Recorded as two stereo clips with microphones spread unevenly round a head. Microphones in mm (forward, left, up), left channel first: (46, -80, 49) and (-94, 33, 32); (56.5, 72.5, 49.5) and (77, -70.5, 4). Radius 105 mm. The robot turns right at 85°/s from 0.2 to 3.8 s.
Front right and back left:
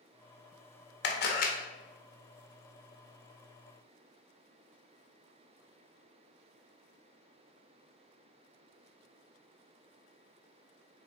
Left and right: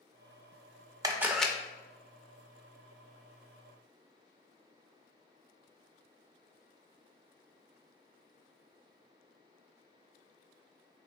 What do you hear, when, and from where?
1.0 s a camera shutter: 35° right, 0.7 m; by 1.5 s 5° left, 0.7 m